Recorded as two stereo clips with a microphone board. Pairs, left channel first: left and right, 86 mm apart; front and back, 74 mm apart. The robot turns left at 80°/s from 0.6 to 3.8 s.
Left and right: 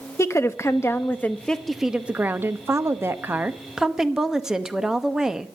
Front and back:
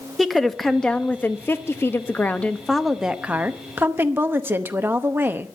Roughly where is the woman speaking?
Left.